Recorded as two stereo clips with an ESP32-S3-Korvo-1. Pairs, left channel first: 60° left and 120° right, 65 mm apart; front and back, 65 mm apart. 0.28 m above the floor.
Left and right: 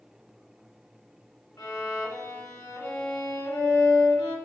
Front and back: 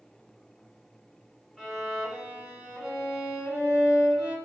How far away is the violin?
About 1.1 m.